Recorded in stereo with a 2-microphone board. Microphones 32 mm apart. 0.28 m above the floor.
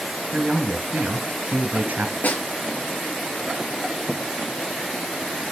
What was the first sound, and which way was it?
A man speaking, 65° right (ahead or behind).